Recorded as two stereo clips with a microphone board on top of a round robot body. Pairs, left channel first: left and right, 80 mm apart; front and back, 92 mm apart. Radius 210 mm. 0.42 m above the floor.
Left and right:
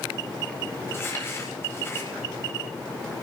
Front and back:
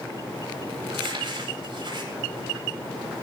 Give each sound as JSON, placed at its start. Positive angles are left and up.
{"t": 0.9, "sound": "crumpling", "azimuth_deg": 150, "distance_m": 8.5}